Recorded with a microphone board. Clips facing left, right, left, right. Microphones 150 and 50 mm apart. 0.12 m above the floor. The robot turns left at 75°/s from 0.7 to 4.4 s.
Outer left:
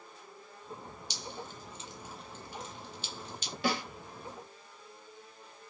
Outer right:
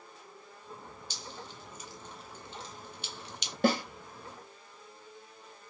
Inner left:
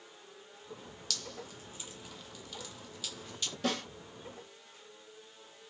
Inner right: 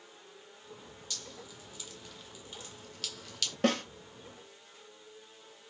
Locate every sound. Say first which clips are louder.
1.1 s dripping: outer left 4 dB, inner left 4 dB; 75° left (ahead or behind), 0.6 m; by 3.5 s 75° right (ahead or behind), 0.6 m
3.6 s a snare drum: outer right 6 dB, inner right 6 dB; 50° right (ahead or behind), 1.0 m; by 3.8 s 40° right (ahead or behind), 1.0 m